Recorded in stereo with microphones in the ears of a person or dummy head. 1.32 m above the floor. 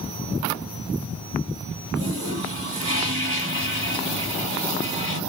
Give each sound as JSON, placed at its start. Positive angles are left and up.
{"t": 1.9, "sound": "a toilet flushing", "side_deg": -30, "distance_m": 3.5}